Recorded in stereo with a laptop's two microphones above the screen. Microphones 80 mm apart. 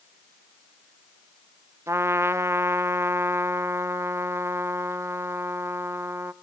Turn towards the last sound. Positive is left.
turn(degrees=-35)  # may be behind; listen again after turning